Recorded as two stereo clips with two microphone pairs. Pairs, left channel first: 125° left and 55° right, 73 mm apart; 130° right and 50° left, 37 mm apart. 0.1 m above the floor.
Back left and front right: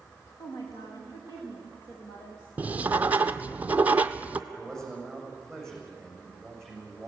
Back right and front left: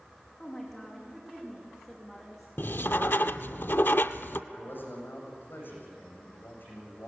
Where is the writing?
120° right, 0.6 m.